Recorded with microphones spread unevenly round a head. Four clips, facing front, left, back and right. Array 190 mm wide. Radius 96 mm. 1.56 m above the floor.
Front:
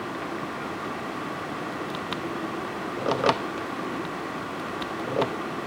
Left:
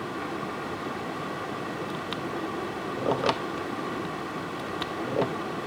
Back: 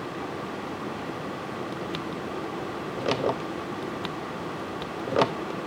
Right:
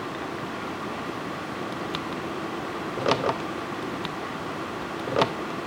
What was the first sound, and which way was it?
Only background noise.